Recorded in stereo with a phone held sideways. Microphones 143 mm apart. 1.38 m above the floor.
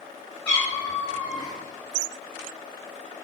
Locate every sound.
0.5 s a cat meowing: 15° left (ahead or behind), 1.7 m; by 1.6 s 25° left (ahead or behind), 1.2 m